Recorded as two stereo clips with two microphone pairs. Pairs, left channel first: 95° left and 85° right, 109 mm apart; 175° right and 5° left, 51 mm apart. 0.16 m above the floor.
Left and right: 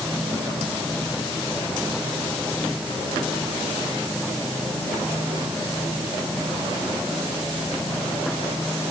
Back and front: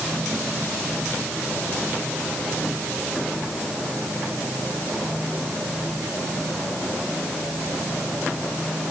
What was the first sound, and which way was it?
Only background noise.